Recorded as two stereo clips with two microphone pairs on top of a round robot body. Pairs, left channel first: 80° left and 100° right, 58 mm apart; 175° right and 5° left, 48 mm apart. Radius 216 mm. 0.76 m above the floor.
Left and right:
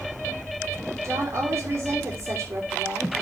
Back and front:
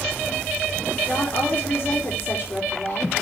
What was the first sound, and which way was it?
A woman speaking, 130° right.